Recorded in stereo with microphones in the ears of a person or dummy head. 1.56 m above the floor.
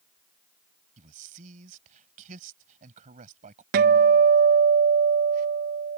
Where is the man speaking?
40° right (ahead or behind).